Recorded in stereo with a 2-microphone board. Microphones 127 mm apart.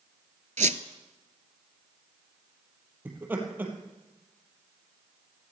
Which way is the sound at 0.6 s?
70° right (ahead or behind).